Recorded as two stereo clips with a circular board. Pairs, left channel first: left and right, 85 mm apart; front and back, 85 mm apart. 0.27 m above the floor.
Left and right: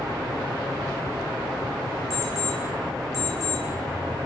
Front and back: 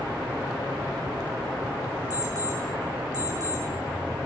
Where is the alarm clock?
140° left, 6 m.